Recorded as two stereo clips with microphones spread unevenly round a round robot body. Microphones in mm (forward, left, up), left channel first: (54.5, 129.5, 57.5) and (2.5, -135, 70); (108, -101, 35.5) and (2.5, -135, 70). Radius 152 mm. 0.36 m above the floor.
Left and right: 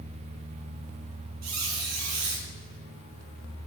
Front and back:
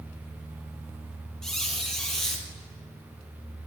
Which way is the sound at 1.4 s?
75° right.